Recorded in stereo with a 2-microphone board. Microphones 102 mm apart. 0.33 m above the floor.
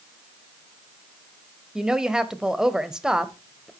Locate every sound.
1.8 s a woman speaking: 5° right (ahead or behind), 1.1 m